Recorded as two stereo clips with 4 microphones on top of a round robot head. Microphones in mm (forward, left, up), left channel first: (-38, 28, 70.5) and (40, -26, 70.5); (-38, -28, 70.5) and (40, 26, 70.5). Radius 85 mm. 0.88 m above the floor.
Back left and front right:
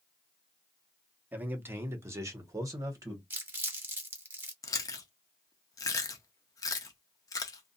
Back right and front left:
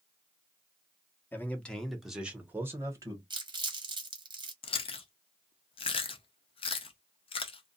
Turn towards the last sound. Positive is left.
turn(degrees=-160)